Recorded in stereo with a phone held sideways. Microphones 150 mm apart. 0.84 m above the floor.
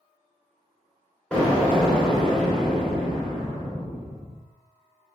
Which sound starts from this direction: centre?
An explosion, at 1.3 s.